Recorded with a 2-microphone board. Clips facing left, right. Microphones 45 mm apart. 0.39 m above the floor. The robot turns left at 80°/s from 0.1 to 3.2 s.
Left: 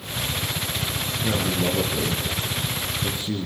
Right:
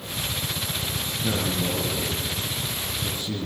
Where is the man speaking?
Straight behind, 5 m; by 3.5 s 25° left, 5 m.